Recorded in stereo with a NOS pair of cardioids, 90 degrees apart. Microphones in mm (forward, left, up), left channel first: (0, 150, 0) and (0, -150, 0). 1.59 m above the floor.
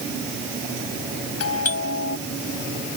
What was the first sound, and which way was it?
A doorbell, 55° left.